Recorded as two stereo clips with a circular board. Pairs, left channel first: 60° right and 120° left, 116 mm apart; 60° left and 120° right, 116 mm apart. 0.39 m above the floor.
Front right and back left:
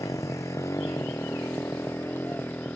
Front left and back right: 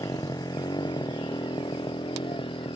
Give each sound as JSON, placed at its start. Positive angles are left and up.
{"t": 0.0, "sound": "a motorcycle", "azimuth_deg": 0}